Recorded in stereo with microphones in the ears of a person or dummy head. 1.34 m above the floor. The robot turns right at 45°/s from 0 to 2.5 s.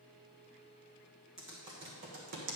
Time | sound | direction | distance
1.4 | typing on a keyboard | 5° right (ahead or behind) | 1.4 m